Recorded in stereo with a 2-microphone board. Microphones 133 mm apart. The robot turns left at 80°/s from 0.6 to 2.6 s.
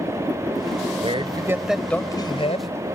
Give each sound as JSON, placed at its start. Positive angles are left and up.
{"t": 1.0, "sound": "a man speaking", "azimuth_deg": -120}